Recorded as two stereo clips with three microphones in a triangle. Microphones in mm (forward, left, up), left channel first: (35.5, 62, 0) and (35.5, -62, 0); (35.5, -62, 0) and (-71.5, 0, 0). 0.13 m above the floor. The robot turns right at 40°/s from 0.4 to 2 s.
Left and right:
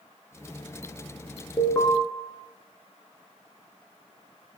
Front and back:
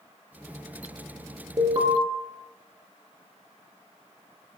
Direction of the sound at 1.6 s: 130° left.